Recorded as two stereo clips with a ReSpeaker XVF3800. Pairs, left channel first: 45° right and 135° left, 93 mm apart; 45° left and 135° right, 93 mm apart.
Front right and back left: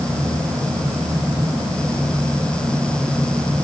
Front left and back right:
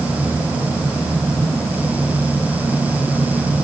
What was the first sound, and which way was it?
Only background noise.